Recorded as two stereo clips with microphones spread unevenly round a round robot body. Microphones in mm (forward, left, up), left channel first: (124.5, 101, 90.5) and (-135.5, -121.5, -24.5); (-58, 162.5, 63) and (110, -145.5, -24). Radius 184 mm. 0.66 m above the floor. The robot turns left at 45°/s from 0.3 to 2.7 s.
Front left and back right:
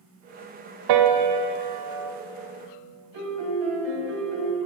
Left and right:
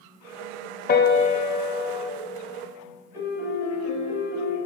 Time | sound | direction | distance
0.9 | a piano | 175° right | 0.8 m
3.1 | a piano | 145° right | 2.5 m